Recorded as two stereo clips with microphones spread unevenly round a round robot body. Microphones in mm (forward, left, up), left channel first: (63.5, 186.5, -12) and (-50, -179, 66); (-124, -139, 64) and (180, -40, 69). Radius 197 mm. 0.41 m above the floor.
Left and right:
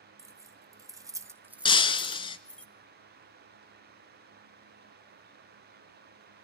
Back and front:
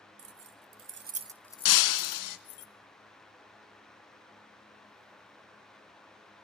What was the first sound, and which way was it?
Keys jangling, 20° right.